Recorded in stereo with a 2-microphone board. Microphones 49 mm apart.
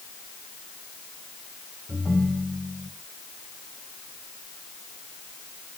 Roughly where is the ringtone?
Right.